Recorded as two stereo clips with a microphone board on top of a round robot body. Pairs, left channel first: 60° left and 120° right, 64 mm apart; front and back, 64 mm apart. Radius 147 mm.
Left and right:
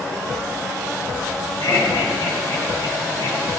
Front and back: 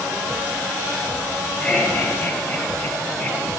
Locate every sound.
1.6 s laughter: 75° left, 7 m; by 3.4 s 85° left, 5.5 m